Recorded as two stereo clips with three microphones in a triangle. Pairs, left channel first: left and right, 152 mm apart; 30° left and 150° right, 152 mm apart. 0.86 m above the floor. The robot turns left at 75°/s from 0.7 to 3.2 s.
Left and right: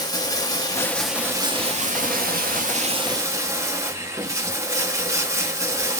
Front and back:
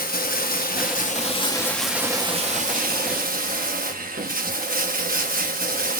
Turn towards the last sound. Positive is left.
turn(degrees=-160)